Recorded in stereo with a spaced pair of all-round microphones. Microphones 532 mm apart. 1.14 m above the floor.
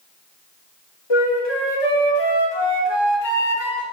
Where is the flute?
50° left (ahead or behind), 0.8 m.